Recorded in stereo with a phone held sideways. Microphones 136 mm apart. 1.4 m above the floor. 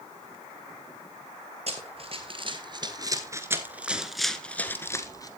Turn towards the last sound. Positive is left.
turn(degrees=25)  # may be behind; listen again after turning